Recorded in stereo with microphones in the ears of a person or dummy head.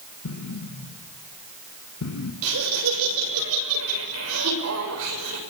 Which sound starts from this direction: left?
An explosion, at 0.2 s.